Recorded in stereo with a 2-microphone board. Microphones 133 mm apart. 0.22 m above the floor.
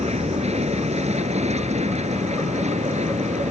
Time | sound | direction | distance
0.0 | an aircraft | 55° right (ahead or behind) | ?